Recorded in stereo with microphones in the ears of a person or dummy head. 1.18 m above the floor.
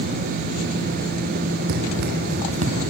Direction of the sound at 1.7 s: 55° right (ahead or behind).